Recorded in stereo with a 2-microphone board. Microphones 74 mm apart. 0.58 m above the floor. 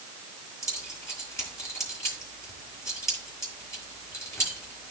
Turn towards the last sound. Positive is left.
turn(degrees=40)  # may be behind; listen again after turning